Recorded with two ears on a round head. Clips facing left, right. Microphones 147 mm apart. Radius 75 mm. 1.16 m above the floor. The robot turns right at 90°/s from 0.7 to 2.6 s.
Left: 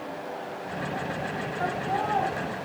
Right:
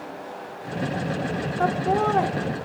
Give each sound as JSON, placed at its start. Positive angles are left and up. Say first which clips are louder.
{"t": 1.6, "sound": "laughter", "louder": "right 7 dB", "azimuth_deg": -125, "distance_m": 0.8}